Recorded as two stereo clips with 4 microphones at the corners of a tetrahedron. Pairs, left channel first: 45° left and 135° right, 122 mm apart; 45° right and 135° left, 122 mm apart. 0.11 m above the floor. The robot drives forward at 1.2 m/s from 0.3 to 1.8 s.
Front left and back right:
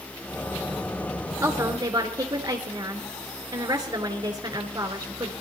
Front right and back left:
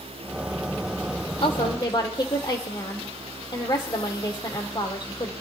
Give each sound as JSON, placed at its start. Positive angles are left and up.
{"t": 1.4, "sound": "a woman speaking", "azimuth_deg": -75, "distance_m": 2.5}